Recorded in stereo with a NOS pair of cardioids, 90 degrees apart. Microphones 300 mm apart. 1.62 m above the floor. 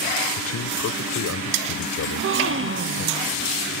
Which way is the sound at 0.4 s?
55° left.